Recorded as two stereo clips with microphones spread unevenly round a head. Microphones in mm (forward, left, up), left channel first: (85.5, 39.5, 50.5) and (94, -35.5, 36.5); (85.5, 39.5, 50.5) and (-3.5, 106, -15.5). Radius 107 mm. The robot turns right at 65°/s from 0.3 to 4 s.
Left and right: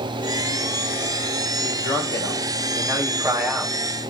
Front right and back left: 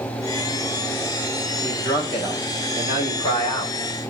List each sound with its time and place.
1.6 s a man speaking: 130° right, 5.5 m; by 3.8 s 15° left, 5.5 m